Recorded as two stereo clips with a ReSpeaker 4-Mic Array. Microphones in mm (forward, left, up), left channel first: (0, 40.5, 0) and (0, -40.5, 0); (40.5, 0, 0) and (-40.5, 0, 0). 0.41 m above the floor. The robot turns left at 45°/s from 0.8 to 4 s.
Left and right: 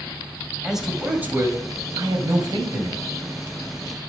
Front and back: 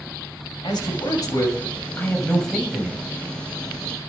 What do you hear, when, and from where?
0.6 s a man speaking: 5° right, 2.5 m; by 3.0 s 105° right, 2.5 m